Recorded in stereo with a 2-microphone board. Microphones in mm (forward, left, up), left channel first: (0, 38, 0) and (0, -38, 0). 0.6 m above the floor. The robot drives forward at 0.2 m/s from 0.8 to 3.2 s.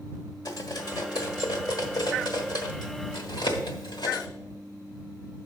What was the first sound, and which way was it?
Cutlery clinking, 60° left (ahead or behind).